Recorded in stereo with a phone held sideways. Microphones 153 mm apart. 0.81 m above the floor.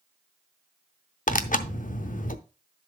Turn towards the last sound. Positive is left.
turn(degrees=60)  # may be behind; listen again after turning